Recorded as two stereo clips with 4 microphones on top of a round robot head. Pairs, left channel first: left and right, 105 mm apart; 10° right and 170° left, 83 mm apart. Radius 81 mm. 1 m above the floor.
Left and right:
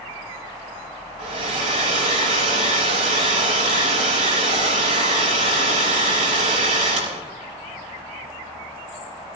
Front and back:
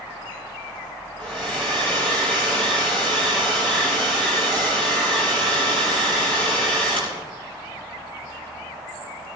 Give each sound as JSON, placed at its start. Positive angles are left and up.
{"t": 1.2, "sound": "a hair dryer", "azimuth_deg": -90, "distance_m": 5.0}